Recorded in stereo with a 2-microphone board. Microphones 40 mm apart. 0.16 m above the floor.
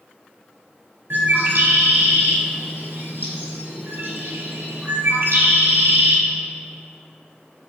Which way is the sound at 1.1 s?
60° right (ahead or behind).